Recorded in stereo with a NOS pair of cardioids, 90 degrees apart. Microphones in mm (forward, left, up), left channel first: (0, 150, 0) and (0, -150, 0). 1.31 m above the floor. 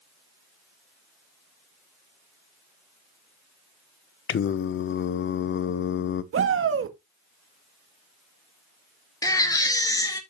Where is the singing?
40° left, 0.7 m.